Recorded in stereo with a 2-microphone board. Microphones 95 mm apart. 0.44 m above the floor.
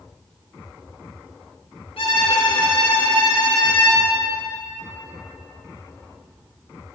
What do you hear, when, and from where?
2.0 s a violin: 80° left, 3 m